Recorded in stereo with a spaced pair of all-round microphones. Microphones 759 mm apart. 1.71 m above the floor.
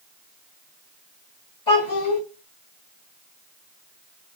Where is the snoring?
I don't hear snoring.